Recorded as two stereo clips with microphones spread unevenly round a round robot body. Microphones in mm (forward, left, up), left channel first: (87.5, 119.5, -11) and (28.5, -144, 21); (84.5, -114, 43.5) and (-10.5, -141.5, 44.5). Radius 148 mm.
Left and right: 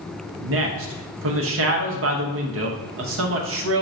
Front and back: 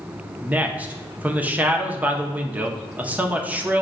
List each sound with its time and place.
0.4 s a man speaking: 95° right, 0.8 m